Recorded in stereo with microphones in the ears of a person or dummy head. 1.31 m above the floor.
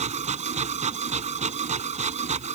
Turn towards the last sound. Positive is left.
turn(degrees=-35)  # may be behind; listen again after turning